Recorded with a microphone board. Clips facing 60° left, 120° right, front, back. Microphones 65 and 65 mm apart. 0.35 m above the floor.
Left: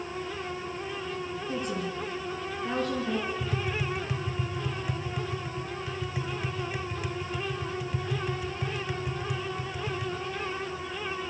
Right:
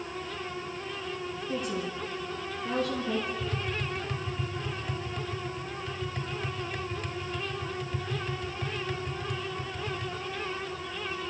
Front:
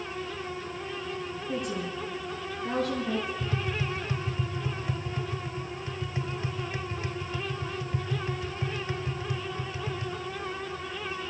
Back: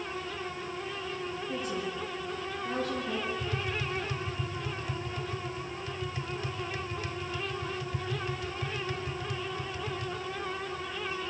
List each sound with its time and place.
1.5 s a woman speaking: 15° left, 5 m
3.4 s tapping: 10° right, 0.9 m